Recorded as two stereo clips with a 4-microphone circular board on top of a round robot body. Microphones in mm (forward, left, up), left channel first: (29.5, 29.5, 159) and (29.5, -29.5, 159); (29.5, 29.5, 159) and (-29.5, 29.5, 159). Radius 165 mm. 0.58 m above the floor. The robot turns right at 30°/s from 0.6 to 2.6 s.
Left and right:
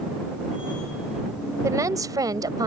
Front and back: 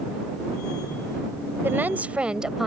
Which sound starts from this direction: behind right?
A woman speaking, at 1.6 s.